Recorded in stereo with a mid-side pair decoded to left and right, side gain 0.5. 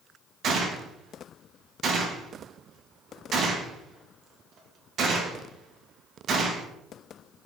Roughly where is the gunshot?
Ahead right.